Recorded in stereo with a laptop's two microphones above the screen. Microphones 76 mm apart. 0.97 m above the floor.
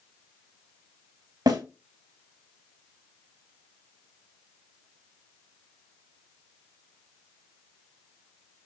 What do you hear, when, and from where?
1.5 s a snare drum: 65° right (ahead or behind), 1.8 m